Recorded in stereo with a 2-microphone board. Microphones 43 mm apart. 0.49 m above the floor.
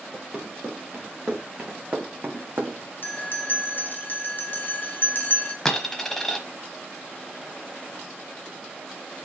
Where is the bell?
45° left (ahead or behind), 1.1 m.